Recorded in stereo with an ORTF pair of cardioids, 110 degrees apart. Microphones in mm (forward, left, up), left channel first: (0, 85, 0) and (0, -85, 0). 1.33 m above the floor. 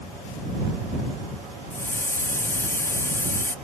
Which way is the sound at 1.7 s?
15° left.